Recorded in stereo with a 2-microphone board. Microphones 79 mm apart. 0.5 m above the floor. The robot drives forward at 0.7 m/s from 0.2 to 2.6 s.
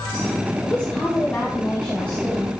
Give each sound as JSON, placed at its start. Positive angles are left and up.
{"t": 0.6, "sound": "a woman speaking", "side_deg": 20, "distance_m": 1.9}